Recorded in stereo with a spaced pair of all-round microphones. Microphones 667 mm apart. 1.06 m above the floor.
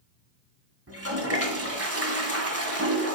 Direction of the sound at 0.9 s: 20° right (ahead or behind).